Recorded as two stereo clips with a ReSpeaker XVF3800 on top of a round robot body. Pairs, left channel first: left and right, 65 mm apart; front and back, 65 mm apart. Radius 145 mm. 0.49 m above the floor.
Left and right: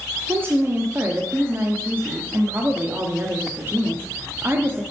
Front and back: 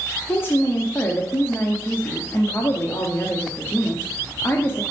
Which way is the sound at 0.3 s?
45° right.